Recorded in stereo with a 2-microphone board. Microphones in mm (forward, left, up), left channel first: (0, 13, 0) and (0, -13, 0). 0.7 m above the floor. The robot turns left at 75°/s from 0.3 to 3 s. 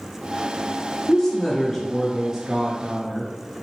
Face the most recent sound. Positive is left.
turn(degrees=-30)  # may be behind; listen again after turning